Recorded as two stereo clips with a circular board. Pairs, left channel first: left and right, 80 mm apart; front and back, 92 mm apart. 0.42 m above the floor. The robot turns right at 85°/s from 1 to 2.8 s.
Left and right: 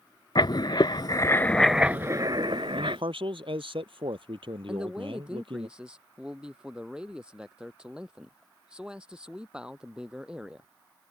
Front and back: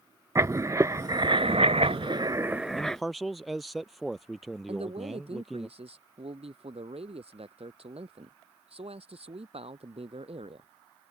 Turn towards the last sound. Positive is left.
turn(degrees=-170)